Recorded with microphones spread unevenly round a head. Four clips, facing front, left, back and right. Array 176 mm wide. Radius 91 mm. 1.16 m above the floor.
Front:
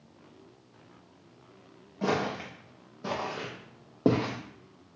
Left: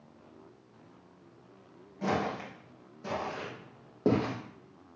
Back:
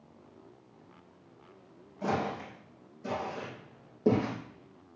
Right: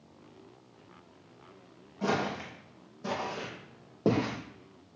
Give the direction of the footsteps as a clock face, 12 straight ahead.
12 o'clock.